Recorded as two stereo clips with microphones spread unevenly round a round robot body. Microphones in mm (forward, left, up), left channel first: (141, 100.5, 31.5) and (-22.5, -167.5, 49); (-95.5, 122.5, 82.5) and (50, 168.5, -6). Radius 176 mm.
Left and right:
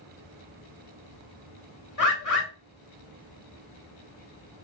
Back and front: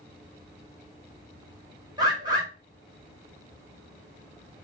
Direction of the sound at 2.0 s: 35° left.